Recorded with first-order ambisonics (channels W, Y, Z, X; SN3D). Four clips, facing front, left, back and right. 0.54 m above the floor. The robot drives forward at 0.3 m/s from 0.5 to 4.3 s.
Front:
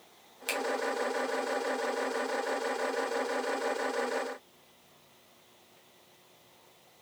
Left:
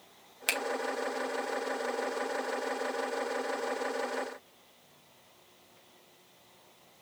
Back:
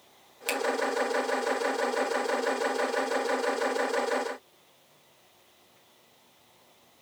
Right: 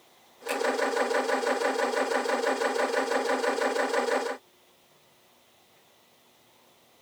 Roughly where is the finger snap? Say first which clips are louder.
Even, back 3 dB; left.